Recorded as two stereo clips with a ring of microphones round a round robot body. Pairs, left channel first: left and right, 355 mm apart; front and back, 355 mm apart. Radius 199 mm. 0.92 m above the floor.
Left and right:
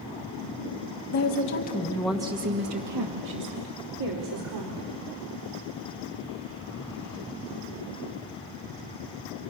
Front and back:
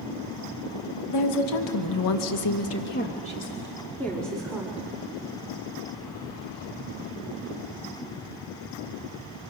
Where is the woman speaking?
40° left, 2 m; by 4.9 s 90° right, 4 m.